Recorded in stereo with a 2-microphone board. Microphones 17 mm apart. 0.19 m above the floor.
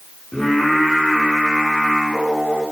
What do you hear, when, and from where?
0.3 s singing: 50° left (ahead or behind), 7.5 m